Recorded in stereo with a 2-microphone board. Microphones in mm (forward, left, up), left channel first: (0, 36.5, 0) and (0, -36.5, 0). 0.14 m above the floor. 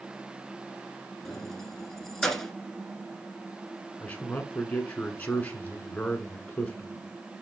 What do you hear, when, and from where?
1.2 s keys jangling: 5° left (ahead or behind), 1.2 m
4.0 s a man speaking: 20° left (ahead or behind), 1.5 m